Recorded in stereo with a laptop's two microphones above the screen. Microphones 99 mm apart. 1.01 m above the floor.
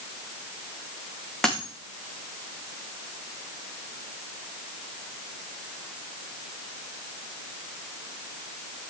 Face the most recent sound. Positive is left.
turn(degrees=5)  # may be behind; listen again after turning